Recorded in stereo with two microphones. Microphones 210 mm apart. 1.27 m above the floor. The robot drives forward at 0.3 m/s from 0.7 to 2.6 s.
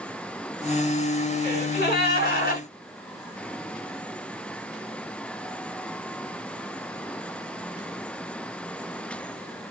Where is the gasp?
50° left (ahead or behind), 1.6 m; by 2.6 s 45° left (ahead or behind), 1.9 m.